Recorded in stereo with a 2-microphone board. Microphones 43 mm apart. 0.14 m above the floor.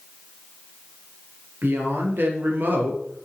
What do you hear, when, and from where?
1.6 s a woman speaking: 50° right (ahead or behind), 2.5 m